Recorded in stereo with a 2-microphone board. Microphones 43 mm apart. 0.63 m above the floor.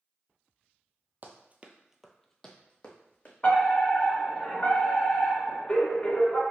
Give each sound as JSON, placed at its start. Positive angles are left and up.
{"t": 1.2, "sound": "running footsteps", "side_deg": -45, "distance_m": 0.9}
{"t": 3.4, "sound": "a fire alarm", "side_deg": 25, "distance_m": 1.8}